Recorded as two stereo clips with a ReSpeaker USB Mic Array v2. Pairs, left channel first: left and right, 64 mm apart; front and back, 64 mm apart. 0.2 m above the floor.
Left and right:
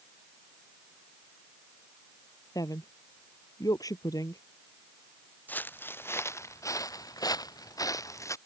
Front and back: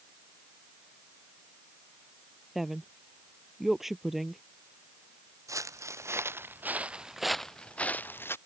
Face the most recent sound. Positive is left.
turn(degrees=50)